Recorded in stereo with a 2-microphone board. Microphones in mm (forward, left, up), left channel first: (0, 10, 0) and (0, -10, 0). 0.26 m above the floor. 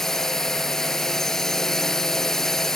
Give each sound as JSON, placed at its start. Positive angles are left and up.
{"t": 0.0, "sound": "a drone", "side_deg": 20}